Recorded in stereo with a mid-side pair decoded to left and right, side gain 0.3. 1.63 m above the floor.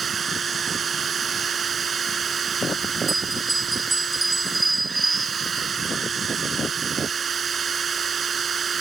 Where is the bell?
20° right.